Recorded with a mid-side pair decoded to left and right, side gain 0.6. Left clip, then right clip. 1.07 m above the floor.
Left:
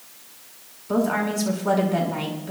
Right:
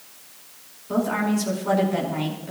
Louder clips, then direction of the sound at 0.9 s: Left 1 dB; 20° left.